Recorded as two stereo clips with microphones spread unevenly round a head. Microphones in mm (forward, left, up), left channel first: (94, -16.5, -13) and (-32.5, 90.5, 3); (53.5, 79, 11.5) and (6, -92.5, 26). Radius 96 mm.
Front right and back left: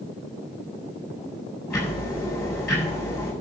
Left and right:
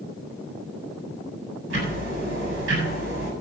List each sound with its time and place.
1.7 s ticking: 130° right, 7.5 m